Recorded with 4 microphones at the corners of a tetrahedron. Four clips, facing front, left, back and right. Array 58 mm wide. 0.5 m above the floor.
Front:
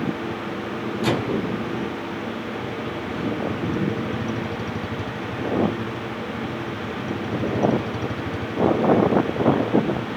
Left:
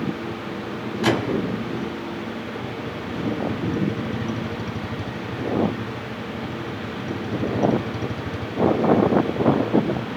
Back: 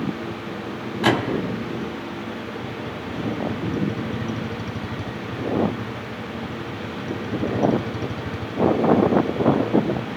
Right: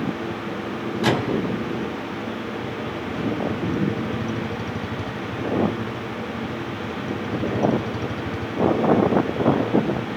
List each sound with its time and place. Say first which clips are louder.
1.0 s a microwave: even, back 3 dB; straight behind, 1.4 m